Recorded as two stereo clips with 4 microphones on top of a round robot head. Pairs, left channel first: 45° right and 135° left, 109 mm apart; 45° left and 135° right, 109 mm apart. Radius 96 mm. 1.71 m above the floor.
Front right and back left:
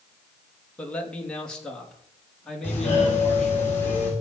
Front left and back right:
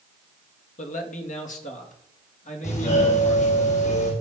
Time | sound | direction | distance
0.8 | a man speaking | 35° left | 2.5 m
2.6 | a doorbell | 30° left | 8.5 m